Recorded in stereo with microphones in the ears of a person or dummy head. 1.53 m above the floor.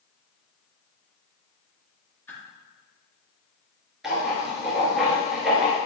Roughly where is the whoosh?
Centre.